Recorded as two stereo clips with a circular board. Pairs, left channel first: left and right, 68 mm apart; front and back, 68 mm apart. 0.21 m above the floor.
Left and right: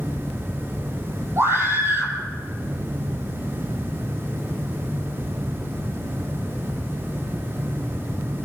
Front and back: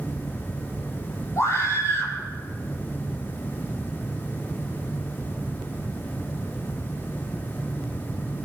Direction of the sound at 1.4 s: 40° right.